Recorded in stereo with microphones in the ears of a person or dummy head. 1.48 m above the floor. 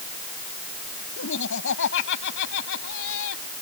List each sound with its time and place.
1.2 s laughter: 70° left (ahead or behind); by 3.4 s 80° left